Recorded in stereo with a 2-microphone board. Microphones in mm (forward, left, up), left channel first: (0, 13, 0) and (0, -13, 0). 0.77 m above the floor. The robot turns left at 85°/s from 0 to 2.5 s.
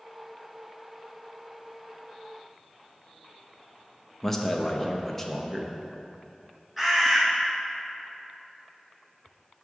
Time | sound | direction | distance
4.2 | a man speaking | 10° left (ahead or behind) | 0.5 m
6.8 | a bird | 15° right (ahead or behind) | 1.1 m